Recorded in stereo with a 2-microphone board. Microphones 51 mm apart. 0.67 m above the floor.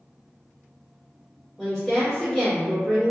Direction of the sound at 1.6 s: 10° left (ahead or behind).